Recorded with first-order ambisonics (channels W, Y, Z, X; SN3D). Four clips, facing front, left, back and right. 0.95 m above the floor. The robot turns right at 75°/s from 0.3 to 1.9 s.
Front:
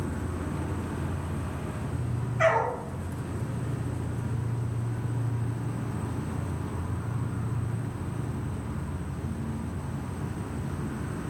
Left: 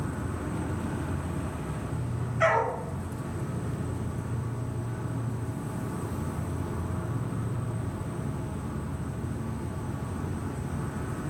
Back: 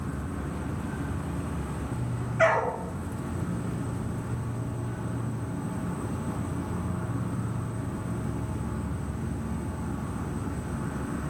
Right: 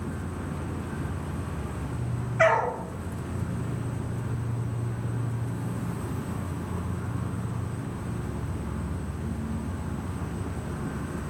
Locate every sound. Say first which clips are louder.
0.0 s an insect: left 1 dB, front 1 dB; 60° left, 1.4 m; by 11.3 s straight behind, 1.4 m
2.4 s a dog barking: right 3 dB, back 1 dB; 120° right, 2 m